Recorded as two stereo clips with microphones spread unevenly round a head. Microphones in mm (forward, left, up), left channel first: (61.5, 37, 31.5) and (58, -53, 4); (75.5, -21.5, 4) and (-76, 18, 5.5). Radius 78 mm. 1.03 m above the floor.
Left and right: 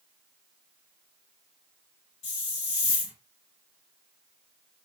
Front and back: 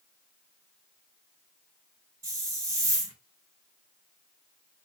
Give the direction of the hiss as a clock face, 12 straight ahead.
9 o'clock.